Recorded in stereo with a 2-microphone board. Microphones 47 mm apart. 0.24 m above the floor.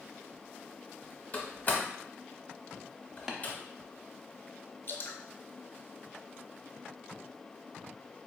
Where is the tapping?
10° right (ahead or behind), 0.6 m.